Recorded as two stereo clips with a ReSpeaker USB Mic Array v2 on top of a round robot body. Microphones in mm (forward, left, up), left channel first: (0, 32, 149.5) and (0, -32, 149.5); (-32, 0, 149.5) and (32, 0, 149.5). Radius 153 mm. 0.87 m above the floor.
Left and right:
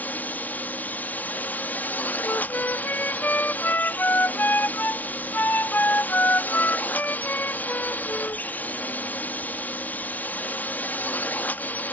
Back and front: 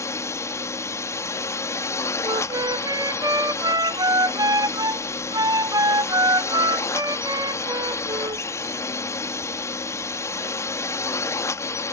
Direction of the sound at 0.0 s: 150° left.